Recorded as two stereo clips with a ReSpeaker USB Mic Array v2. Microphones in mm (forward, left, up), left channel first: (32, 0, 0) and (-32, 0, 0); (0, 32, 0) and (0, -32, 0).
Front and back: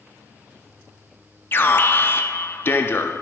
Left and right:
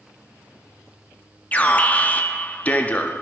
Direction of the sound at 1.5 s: 35° left.